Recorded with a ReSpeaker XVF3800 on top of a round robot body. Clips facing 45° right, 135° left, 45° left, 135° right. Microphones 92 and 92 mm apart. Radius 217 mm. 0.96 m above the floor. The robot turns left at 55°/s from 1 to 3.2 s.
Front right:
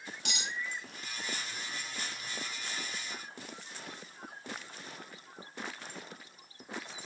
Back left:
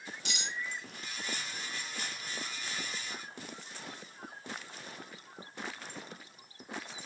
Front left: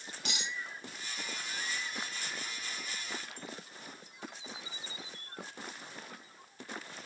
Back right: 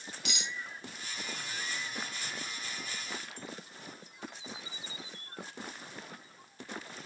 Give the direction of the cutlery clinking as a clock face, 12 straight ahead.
12 o'clock.